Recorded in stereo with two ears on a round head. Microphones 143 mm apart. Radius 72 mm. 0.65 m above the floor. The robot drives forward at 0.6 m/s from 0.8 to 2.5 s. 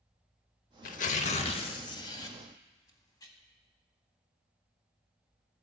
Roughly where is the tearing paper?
Left.